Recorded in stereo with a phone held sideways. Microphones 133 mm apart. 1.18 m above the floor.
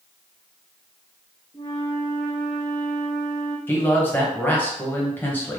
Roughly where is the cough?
I don't hear a cough.